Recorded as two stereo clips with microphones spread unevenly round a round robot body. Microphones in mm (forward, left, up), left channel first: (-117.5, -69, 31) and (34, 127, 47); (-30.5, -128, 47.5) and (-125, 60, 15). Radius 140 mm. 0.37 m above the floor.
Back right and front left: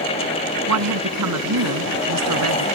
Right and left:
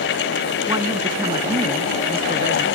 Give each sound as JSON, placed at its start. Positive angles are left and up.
{"t": 0.7, "sound": "a woman speaking", "azimuth_deg": 40}